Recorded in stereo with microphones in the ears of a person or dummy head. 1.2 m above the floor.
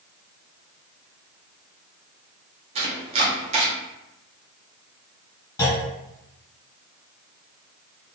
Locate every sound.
2.8 s chopping: 30° right (ahead or behind), 0.6 m
5.6 s a clunk: 15° left (ahead or behind), 1.6 m